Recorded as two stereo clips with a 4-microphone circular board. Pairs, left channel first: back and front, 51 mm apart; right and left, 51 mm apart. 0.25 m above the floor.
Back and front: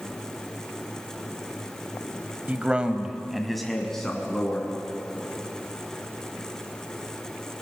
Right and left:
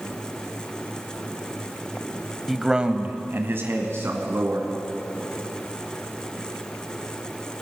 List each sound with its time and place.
2.5 s a man speaking: straight ahead, 1.2 m; by 4.7 s 105° left, 3 m